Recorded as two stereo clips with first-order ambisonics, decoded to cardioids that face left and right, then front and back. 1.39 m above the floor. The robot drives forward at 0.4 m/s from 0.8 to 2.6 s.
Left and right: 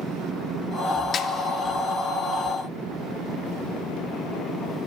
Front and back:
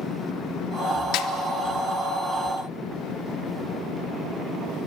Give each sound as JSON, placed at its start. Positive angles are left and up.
{"t": 1.1, "sound": "a snare drum", "azimuth_deg": 30, "distance_m": 0.8}